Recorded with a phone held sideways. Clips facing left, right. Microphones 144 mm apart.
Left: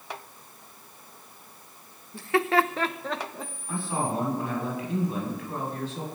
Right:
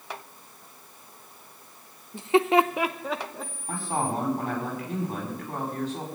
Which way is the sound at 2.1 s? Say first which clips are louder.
Right 3 dB; 20° right (ahead or behind).